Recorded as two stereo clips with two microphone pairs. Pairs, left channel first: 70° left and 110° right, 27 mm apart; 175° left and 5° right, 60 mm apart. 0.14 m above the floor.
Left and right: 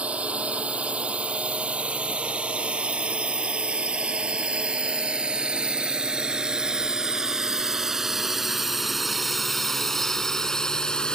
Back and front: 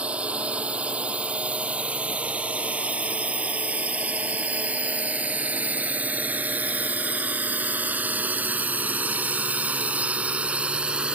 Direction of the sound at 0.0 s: 75° right.